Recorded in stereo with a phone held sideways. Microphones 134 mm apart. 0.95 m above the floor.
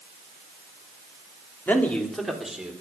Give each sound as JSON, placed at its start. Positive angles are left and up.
{"t": 1.7, "sound": "a man speaking", "side_deg": 15, "distance_m": 3.0}